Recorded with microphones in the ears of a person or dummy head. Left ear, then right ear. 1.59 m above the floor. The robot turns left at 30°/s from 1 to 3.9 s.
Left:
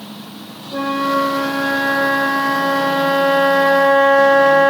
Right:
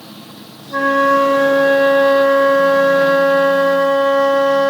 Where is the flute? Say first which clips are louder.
Right 6 dB; 115° right, 0.9 m; by 4.7 s 155° left, 0.9 m.